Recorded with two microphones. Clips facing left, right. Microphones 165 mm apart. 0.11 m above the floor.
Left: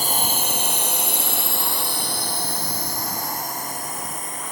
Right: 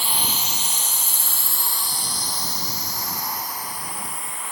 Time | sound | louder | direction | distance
0.0 | a drone | left 4 dB | 40° left (ahead or behind) | ?